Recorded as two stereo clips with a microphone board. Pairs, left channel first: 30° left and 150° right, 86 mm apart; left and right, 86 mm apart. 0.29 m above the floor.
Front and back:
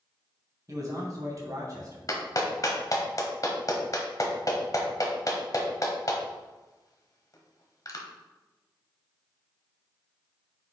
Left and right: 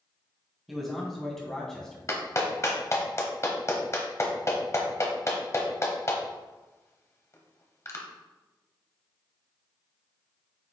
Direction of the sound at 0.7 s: Straight behind.